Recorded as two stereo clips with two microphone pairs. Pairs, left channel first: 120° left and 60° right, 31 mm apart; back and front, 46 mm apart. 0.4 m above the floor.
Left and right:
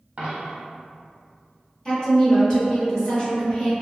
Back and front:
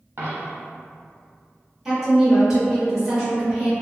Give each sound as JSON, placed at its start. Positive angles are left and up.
{"t": 0.2, "sound": "a dropped coin", "azimuth_deg": -25, "distance_m": 1.0}
{"t": 1.9, "sound": "a woman speaking", "azimuth_deg": 70, "distance_m": 1.3}